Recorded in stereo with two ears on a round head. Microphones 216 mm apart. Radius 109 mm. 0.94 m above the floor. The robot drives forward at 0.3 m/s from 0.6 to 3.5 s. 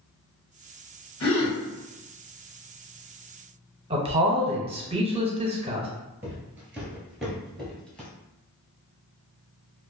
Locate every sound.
1.2 s a gasp: 65° left (ahead or behind), 1.4 m
3.9 s a man speaking: 25° right (ahead or behind), 0.6 m
6.2 s footsteps: 10° right (ahead or behind), 1.0 m; by 8.1 s 5° left (ahead or behind), 1.0 m